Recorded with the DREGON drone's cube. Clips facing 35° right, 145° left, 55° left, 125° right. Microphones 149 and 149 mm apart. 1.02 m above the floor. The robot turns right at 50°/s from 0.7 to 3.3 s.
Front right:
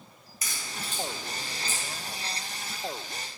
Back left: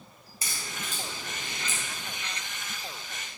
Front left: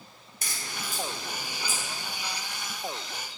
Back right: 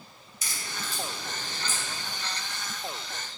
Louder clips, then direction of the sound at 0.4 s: Even, even; 85° left.